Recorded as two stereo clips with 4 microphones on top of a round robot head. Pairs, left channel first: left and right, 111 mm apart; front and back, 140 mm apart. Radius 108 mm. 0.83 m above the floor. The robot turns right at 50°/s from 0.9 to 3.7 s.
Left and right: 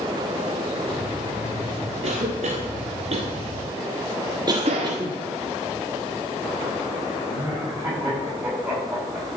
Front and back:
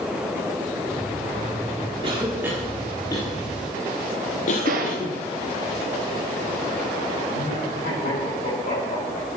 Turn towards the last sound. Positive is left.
turn(degrees=-10)